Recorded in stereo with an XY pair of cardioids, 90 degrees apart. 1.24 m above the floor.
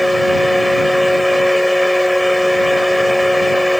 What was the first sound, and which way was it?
A fan, 5° left.